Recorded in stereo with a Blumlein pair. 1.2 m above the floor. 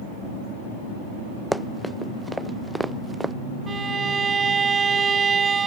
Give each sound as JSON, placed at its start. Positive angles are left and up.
{"t": 1.5, "sound": "running footsteps", "azimuth_deg": -5}
{"t": 3.7, "sound": "a violin", "azimuth_deg": -20}